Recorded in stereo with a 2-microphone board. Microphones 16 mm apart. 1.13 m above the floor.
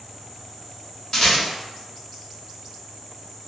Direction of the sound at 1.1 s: 50° left (ahead or behind).